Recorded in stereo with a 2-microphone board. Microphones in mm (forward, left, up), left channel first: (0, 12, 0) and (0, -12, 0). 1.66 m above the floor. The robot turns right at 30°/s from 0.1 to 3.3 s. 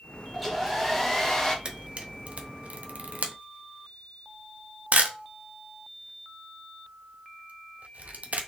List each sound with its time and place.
0.3 s a hair dryer: 10° right, 1.0 m; by 1.6 s 30° left, 1.0 m
1.6 s a camera shutter: 40° right (ahead or behind), 0.7 m; by 8.5 s 90° right, 0.7 m